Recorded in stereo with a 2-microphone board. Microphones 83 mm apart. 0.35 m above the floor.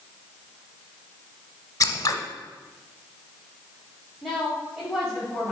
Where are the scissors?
45° left (ahead or behind), 0.8 m.